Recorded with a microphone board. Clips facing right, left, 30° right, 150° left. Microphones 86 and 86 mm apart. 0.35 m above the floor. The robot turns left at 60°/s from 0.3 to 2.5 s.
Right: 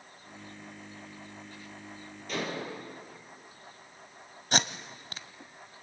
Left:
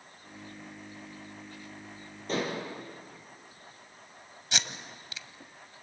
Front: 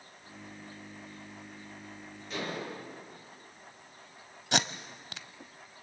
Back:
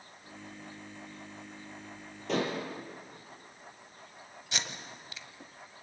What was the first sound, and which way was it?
Dishes clattering, 145° left.